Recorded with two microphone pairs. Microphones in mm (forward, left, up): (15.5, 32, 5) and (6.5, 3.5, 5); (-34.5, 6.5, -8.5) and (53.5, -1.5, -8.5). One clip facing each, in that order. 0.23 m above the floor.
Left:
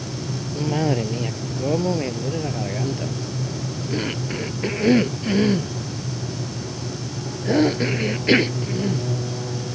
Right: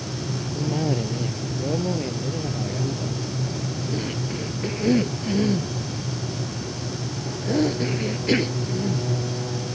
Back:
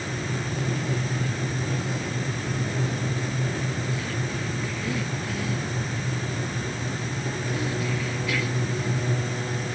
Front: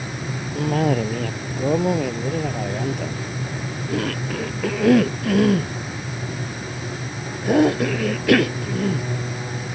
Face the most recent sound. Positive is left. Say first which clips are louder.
# left 4 dB, front 12 dB
turn(degrees=15)